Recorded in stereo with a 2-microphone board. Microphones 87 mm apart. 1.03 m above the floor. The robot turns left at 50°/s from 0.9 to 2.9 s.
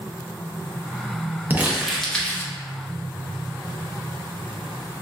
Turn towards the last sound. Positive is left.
turn(degrees=135)